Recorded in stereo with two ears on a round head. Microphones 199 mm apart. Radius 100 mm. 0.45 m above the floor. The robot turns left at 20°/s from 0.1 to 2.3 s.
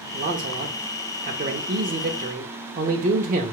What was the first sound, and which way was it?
A man speaking, 65° right.